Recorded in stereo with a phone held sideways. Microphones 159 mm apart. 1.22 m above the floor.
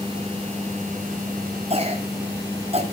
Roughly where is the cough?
Right.